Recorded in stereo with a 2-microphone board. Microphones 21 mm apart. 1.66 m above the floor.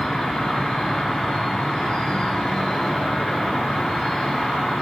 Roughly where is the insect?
Left.